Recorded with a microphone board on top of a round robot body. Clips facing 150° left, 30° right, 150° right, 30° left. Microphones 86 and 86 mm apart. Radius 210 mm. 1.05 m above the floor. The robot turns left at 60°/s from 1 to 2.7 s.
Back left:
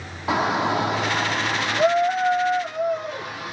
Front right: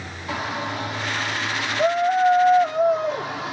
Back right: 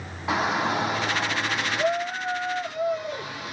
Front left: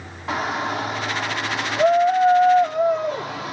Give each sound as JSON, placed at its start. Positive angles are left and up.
{"t": 0.3, "sound": "a shout", "azimuth_deg": 125, "distance_m": 0.7}